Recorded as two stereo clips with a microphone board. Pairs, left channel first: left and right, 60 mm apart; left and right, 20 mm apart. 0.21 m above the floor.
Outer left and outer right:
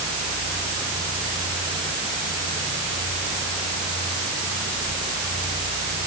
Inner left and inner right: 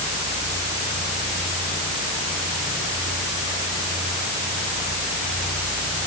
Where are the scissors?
No scissors in this recording.